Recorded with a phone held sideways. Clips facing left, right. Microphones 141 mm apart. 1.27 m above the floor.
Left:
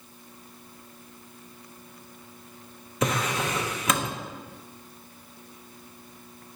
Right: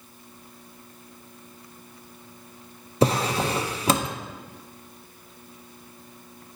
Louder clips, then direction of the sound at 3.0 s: Right 5 dB; 30° right (ahead or behind).